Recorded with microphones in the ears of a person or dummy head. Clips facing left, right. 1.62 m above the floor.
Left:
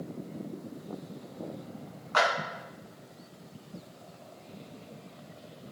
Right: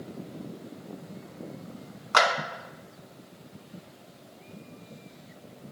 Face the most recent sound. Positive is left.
turn(degrees=-75)  # may be behind; listen again after turning